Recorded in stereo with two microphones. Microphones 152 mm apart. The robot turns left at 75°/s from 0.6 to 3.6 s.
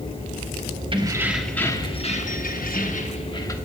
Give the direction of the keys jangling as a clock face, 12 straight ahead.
5 o'clock.